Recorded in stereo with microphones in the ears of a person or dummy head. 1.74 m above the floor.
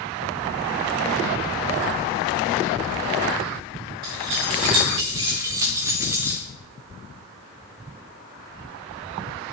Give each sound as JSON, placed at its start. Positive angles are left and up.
{"t": 4.0, "sound": "keys jangling", "side_deg": -25, "distance_m": 1.0}